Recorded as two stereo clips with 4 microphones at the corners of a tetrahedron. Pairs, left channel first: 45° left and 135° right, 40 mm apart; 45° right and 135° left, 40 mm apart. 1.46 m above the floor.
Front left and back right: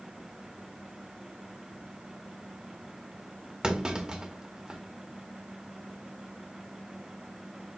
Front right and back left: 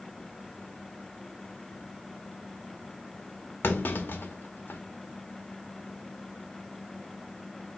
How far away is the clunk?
About 0.8 m.